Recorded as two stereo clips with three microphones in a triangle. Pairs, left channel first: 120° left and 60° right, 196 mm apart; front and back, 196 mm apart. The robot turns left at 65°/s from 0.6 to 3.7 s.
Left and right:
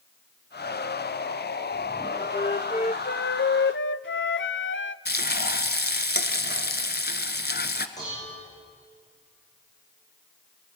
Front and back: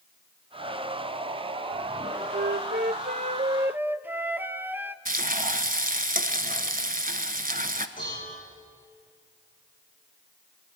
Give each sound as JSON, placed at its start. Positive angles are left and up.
{"t": 2.3, "sound": "a flute", "azimuth_deg": -170, "distance_m": 0.5}
{"t": 5.0, "sound": "frying", "azimuth_deg": 145, "distance_m": 0.9}
{"t": 8.0, "sound": "dishes clattering", "azimuth_deg": 50, "distance_m": 9.5}